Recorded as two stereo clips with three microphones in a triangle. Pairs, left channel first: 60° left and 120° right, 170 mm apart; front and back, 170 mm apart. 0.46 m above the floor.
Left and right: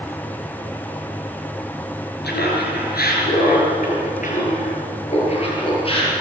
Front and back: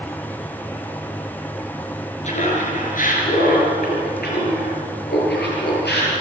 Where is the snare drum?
No snare drum in this recording.